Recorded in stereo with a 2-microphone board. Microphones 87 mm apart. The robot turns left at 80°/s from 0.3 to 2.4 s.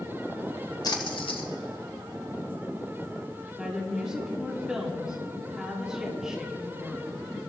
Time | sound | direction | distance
0.8 | a splash | 45° left (ahead or behind) | 1.4 m
3.6 | a woman speaking | 10° right (ahead or behind) | 2.5 m